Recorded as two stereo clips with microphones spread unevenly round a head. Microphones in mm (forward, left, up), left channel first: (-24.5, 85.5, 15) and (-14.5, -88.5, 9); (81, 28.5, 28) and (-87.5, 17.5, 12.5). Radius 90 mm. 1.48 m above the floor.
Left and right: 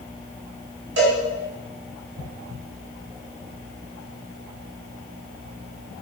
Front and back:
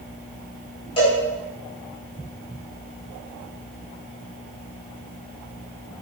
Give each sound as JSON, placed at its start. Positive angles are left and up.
{"t": 1.0, "sound": "a cowbell", "azimuth_deg": -60, "distance_m": 5.5}